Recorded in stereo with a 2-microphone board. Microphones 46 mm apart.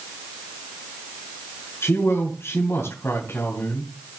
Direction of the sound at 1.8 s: 60° left (ahead or behind).